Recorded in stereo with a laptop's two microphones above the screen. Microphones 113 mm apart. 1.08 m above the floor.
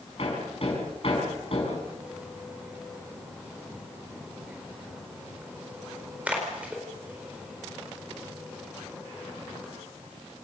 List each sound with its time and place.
0.2 s hammering: 55° left (ahead or behind), 5 m
1.9 s a splash: 15° right (ahead or behind), 4.5 m